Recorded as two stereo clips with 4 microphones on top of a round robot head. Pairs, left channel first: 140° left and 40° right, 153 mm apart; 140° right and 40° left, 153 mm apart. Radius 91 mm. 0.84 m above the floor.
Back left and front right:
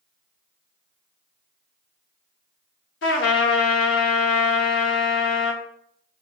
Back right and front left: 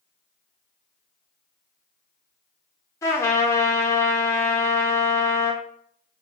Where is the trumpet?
145° left, 0.7 m.